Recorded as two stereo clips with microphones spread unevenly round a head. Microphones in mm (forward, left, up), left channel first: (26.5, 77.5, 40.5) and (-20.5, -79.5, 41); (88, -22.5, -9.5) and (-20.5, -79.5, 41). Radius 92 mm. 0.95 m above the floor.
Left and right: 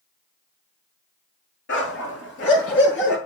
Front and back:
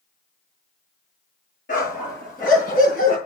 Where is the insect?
No insect in this recording.